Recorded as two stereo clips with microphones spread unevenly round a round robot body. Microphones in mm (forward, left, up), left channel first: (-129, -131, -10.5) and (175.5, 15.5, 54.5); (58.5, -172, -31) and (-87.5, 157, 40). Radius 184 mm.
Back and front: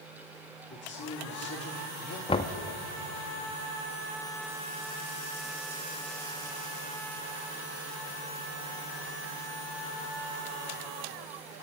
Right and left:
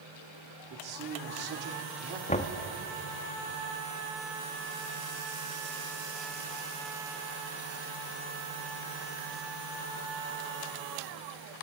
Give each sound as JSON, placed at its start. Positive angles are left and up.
{"t": 0.7, "sound": "a man speaking", "azimuth_deg": 155, "distance_m": 2.0}
{"t": 2.3, "sound": "knocking", "azimuth_deg": -105, "distance_m": 0.5}